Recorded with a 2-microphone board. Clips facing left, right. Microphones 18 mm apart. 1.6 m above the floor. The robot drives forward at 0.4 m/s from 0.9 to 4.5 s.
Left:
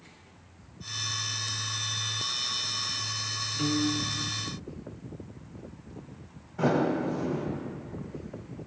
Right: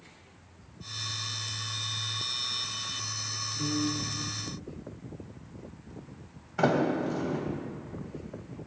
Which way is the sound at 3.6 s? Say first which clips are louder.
Left 3 dB; 75° left (ahead or behind).